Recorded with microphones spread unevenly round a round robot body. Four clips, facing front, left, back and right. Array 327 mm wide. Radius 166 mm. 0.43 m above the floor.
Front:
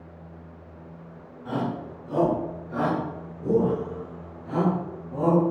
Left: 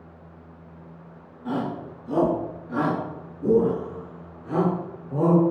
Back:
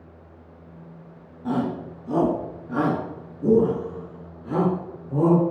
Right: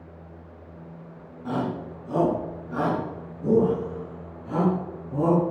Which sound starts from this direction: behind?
A shout, at 1.4 s.